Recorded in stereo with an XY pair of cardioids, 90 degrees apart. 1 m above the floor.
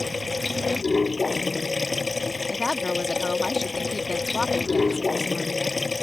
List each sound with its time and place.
0.0 s running water: 25° left
2.5 s a woman speaking: 25° left